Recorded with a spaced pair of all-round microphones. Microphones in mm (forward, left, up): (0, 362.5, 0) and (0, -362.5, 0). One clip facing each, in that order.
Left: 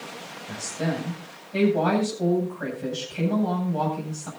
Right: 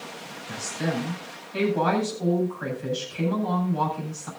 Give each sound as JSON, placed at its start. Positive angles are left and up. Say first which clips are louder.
{"t": 0.5, "sound": "a woman speaking", "louder": "even", "side_deg": 80, "distance_m": 8.5}